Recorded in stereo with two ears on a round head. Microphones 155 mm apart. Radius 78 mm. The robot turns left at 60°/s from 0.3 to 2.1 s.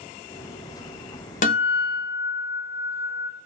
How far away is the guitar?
About 0.7 m.